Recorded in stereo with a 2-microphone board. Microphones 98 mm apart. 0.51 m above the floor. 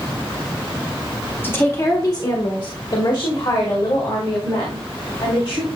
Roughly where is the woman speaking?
Left.